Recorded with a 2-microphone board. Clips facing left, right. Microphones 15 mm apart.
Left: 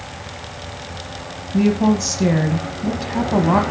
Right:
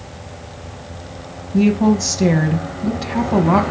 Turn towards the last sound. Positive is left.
turn(degrees=-5)  # may be behind; listen again after turning